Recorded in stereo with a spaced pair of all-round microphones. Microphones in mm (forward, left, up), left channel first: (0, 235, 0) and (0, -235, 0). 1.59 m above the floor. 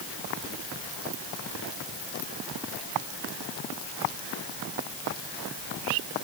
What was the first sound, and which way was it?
Only background noise.